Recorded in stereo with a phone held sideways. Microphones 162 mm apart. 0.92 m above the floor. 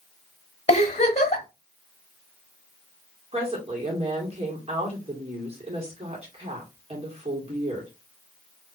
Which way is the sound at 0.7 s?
40° left (ahead or behind).